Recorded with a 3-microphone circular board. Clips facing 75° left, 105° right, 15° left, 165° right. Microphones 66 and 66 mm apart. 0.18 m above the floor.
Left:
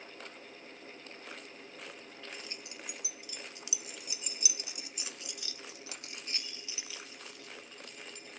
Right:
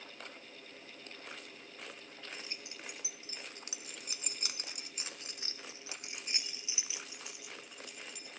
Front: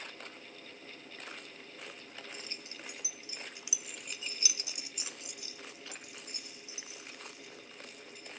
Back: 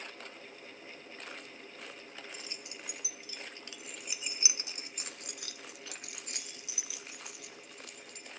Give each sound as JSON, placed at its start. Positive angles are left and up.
{"t": 2.3, "sound": "keys jangling", "azimuth_deg": -40, "distance_m": 2.5}